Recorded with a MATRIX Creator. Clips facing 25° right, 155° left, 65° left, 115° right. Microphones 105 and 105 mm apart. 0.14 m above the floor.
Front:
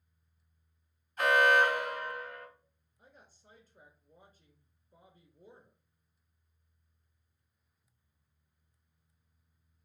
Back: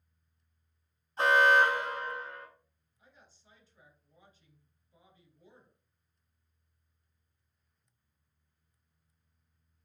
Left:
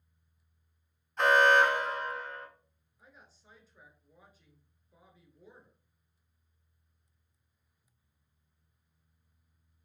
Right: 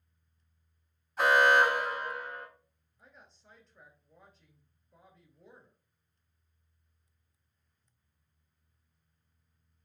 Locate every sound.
1.2 s an alarm: 170° left, 0.9 m
3.0 s a woman speaking: 20° right, 1.5 m